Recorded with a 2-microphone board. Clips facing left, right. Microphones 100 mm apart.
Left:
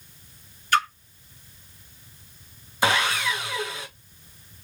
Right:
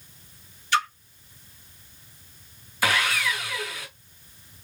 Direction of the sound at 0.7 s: 50° left (ahead or behind).